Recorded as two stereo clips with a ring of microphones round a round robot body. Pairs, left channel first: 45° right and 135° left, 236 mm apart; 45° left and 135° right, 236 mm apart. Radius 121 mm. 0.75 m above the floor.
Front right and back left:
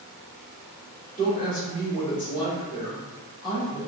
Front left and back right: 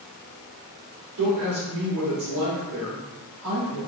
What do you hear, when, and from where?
1.2 s a woman speaking: 105° right, 2.0 m